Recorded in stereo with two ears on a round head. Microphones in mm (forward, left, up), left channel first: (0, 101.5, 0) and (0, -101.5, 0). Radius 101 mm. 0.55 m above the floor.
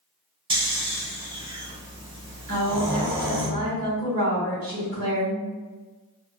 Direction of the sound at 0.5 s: 20° right (ahead or behind).